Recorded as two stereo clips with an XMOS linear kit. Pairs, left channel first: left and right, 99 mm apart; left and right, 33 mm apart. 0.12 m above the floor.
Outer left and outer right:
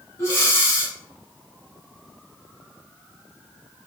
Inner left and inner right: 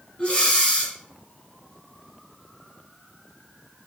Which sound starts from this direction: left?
Breathing, at 0.2 s.